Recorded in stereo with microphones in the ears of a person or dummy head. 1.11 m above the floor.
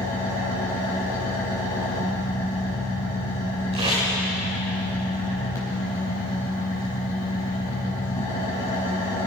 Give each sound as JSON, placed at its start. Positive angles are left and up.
{"t": 0.0, "sound": "an engine running", "side_deg": 15, "distance_m": 4.0}
{"t": 3.7, "sound": "tape being pulled", "side_deg": -35, "distance_m": 6.0}